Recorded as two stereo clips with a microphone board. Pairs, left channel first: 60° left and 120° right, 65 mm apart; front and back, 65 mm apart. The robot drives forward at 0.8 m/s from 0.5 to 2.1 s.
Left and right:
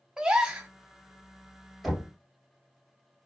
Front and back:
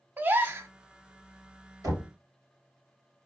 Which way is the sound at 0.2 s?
175° left.